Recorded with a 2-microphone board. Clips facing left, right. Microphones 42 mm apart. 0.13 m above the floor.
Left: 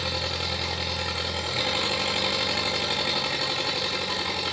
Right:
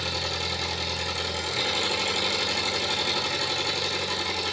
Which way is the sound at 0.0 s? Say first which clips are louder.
Even; 20° left (ahead or behind).